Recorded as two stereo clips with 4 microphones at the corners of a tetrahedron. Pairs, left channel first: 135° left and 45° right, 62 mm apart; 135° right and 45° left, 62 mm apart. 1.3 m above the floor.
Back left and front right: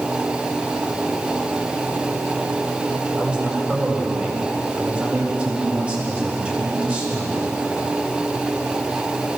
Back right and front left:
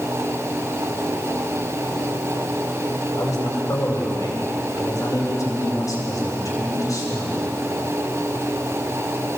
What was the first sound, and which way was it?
A man speaking, 110° right.